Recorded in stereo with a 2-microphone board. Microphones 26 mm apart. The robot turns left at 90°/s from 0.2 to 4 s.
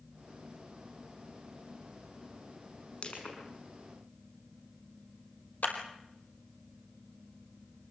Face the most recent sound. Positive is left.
turn(degrees=65)  # may be behind; listen again after turning